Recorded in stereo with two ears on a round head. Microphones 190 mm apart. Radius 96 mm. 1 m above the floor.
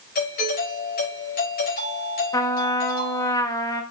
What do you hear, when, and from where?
0.1 s a doorbell: 45° left (ahead or behind), 6.5 m
2.3 s a trumpet: 15° left (ahead or behind), 1.2 m